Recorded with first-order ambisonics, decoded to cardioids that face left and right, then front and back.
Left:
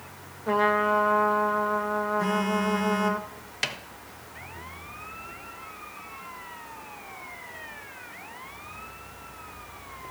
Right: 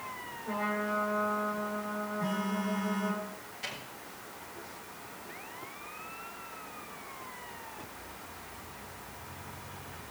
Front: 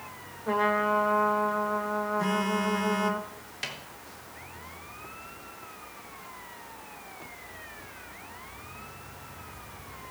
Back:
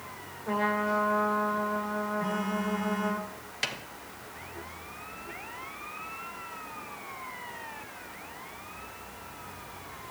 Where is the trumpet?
75° left, 1.0 m.